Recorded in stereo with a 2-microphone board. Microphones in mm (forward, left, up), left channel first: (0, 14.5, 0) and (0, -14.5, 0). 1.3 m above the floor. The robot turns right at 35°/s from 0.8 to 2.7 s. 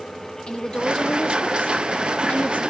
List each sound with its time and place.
0.5 s a woman speaking: 30° left, 2.5 m; by 2.6 s 95° left, 2.5 m